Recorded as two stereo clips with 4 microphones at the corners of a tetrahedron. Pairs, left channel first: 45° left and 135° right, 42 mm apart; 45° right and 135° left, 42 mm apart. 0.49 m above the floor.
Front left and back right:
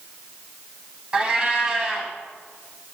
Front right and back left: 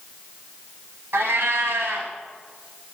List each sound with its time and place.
1.1 s a cat meowing: 155° left, 1.1 m